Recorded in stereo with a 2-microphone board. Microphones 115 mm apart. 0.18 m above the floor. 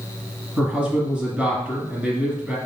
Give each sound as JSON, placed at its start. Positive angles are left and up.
{"t": 0.6, "sound": "a man speaking", "side_deg": -10, "distance_m": 1.5}